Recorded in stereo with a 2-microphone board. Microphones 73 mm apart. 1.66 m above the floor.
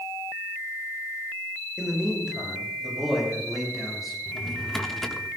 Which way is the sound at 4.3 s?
5° left (ahead or behind).